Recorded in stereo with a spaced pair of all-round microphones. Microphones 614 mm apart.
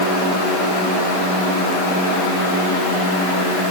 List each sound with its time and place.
Only background noise.